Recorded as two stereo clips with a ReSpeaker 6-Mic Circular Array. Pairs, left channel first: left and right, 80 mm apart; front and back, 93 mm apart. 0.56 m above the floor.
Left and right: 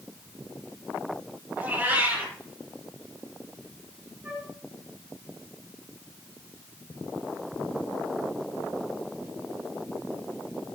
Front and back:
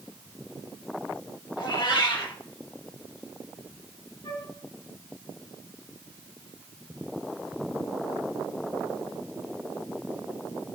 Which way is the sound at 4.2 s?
20° right.